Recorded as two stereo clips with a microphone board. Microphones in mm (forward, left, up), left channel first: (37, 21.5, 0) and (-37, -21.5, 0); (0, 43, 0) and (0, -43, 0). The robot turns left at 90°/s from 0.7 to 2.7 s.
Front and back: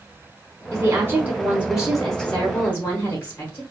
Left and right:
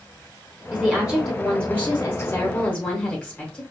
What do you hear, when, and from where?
0.7 s a woman speaking: 130° right, 1.0 m; by 3.6 s 50° left, 1.0 m